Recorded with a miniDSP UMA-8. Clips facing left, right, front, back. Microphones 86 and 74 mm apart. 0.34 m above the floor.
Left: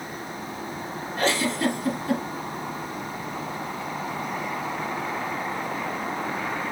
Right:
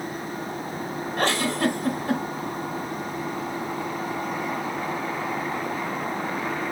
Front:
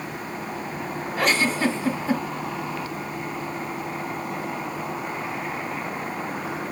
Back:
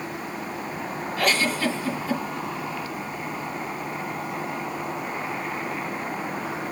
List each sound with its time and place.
1.2 s a giggle: 65° right, 1.6 m